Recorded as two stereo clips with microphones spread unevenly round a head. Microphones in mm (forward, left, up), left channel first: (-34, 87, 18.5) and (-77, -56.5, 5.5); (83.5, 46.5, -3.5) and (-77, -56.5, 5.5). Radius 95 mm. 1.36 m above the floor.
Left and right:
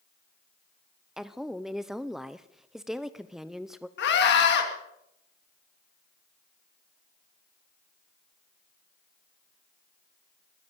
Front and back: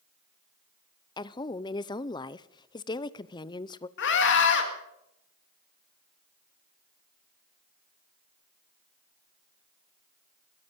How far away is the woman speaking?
About 0.6 m.